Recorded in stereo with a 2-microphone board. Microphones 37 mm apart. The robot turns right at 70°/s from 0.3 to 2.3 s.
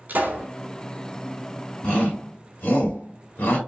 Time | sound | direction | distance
0.1 | a pop | 55° right (ahead or behind) | 2.5 m
1.8 | a shout | 30° left (ahead or behind) | 2.5 m